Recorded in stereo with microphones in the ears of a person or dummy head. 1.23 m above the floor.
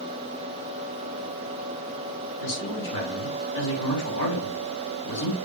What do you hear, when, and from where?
2.4 s a man speaking: 65° left (ahead or behind), 6.5 m